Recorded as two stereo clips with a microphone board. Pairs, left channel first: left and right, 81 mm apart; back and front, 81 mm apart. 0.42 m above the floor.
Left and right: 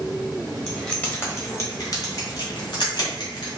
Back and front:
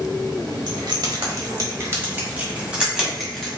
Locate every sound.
0.7 s keys jangling: 10° left, 1.4 m; by 3.5 s 90° left, 2 m